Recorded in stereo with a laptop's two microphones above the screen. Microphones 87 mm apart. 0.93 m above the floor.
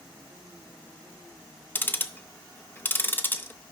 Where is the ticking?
25° left (ahead or behind), 0.6 m.